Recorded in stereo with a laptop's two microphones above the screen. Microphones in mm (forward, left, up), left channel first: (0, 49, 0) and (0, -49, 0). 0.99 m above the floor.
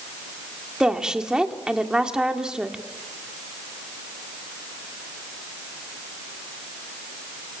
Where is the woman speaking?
5° right (ahead or behind), 2.0 m.